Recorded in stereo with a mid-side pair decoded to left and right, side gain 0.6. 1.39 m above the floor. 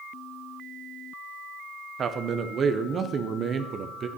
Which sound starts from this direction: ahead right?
A man speaking, at 2.0 s.